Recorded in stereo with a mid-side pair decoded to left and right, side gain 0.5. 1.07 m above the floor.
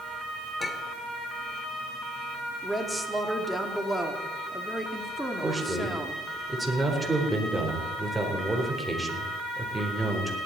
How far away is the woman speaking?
About 2.5 m.